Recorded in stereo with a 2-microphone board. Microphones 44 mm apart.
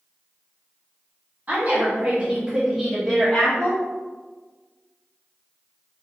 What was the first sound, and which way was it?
A woman speaking, 35° right (ahead or behind).